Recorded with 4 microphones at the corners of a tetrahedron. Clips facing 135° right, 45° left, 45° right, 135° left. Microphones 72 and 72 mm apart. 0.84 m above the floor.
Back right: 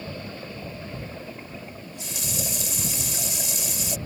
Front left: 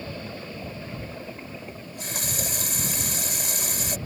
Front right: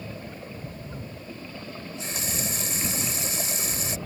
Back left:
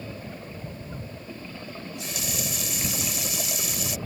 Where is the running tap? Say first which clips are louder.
Front left 2 dB, front right 1 dB; 10° left.